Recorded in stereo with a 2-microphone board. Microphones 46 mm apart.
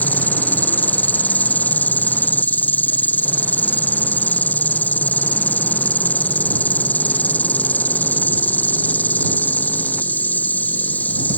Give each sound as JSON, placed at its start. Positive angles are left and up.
{"t": 0.0, "sound": "an insect", "side_deg": 35}